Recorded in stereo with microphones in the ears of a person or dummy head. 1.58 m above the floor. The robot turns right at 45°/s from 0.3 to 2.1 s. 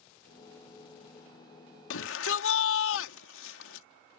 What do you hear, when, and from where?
1.9 s a shout: 75° left (ahead or behind); by 3.9 s 85° left